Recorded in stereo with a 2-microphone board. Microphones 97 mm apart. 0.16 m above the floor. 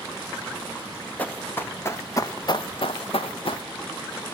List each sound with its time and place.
1.2 s running footsteps: 15° left (ahead or behind), 1.6 m; by 3.6 s 60° left (ahead or behind), 0.8 m